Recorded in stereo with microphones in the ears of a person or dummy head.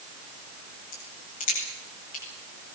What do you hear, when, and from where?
0.9 s a crack: 40° left (ahead or behind), 9 m